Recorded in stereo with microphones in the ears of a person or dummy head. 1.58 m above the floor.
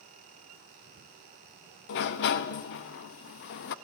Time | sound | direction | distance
1.9 | a sliding door | 55° left (ahead or behind) | 1.2 m